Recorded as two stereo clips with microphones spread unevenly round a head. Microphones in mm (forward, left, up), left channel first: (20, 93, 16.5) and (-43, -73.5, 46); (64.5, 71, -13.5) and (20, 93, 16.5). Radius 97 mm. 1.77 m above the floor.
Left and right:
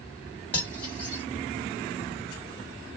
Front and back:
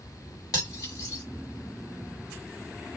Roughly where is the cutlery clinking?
Ahead.